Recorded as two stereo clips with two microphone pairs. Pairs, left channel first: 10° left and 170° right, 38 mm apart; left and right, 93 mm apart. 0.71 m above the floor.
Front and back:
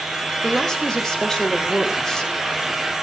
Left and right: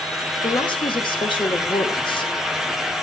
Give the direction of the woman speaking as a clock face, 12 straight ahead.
9 o'clock.